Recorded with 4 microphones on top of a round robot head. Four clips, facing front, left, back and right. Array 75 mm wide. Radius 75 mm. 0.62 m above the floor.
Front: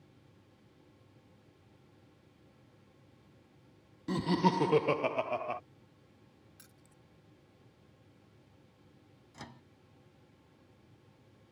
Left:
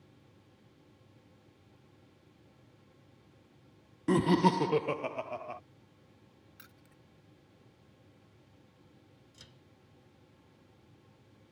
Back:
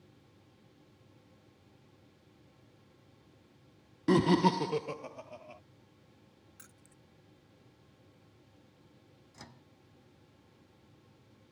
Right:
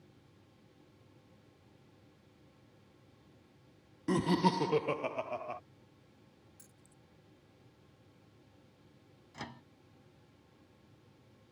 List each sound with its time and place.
4.1 s laughter: 160° left; by 5.6 s 5° right
6.6 s keys jangling: 115° left
9.3 s a microwave: 75° right